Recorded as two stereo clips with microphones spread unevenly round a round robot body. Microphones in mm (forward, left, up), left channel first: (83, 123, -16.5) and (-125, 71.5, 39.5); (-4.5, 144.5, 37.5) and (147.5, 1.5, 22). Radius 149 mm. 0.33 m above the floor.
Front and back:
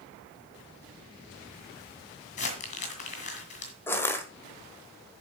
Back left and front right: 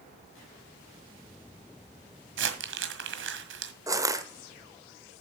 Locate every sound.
2.4 s crumpling: 40° right, 1.6 m
3.9 s crushing: 5° right, 1.3 m